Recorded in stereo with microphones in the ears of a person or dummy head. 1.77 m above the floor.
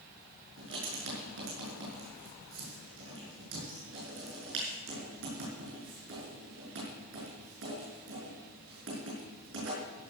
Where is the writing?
70° right (ahead or behind), 5.5 m.